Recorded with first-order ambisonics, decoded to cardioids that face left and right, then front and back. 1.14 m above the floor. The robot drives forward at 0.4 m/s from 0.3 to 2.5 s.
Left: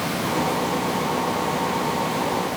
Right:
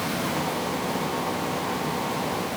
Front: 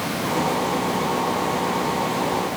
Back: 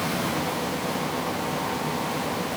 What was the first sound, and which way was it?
Only background noise.